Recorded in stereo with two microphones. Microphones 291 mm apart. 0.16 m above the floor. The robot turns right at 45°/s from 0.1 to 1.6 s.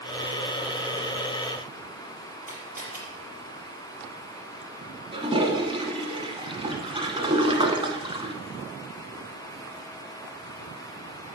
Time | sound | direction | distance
2.5 | a camera shutter | 35° right (ahead or behind) | 4.5 m
5.1 | a toilet flushing | 20° right (ahead or behind) | 1.0 m